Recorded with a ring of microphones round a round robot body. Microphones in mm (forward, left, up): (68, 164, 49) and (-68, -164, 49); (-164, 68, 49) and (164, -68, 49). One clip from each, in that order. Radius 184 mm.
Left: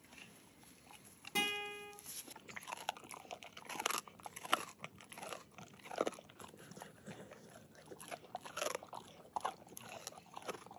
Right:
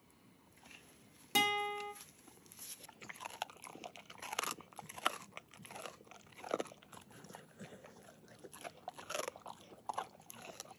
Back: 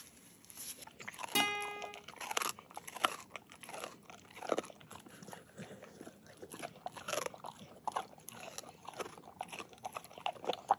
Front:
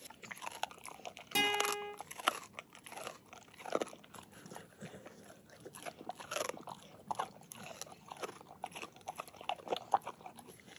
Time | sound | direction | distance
1.4 | a guitar | 115° right | 2 m